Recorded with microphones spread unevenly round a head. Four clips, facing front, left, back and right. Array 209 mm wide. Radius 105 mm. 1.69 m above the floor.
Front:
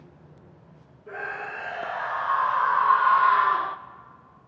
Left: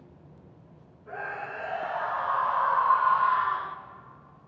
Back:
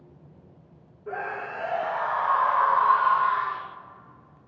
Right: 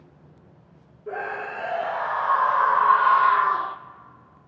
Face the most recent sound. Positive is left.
turn(degrees=-25)